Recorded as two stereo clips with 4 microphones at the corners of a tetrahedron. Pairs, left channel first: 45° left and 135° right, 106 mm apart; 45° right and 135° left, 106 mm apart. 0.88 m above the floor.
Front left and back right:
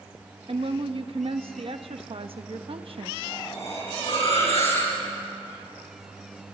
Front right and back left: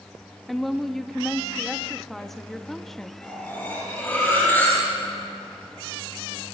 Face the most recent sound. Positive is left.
turn(degrees=25)